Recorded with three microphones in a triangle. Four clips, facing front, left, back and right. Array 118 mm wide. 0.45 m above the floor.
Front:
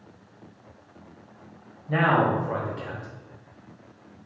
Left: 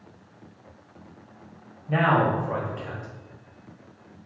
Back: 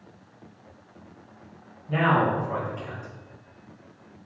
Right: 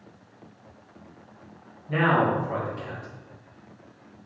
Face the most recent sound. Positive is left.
turn(degrees=-95)